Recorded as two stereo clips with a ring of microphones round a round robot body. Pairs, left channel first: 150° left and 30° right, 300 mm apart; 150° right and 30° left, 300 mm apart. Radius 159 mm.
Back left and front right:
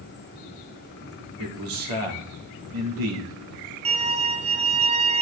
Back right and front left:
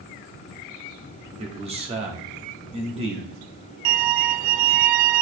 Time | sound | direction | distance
1.4 | a man speaking | 40° right | 1.9 m
3.9 | a violin | 40° left | 0.5 m